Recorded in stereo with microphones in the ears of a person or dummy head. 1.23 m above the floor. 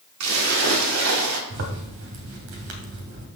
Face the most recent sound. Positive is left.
turn(degrees=-75)  # may be behind; listen again after turning